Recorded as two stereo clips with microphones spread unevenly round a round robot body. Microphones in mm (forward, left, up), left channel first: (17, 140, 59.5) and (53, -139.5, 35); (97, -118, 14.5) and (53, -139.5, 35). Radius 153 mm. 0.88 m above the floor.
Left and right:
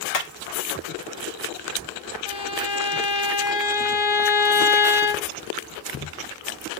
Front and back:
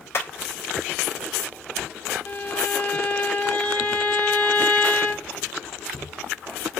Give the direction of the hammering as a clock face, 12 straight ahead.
10 o'clock.